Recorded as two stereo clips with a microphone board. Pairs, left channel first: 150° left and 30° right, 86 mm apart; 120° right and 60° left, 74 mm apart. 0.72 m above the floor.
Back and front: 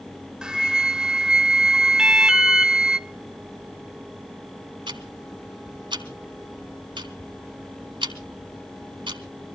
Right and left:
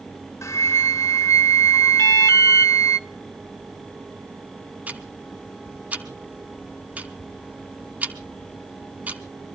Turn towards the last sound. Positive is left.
turn(degrees=-10)